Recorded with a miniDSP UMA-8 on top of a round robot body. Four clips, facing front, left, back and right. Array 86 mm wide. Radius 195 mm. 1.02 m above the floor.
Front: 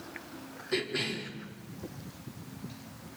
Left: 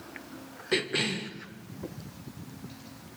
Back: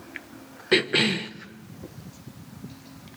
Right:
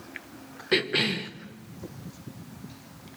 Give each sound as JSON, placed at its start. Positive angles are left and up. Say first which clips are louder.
{"t": 0.7, "sound": "a cough", "louder": "right 3 dB, back 10 dB", "azimuth_deg": -165, "distance_m": 1.4}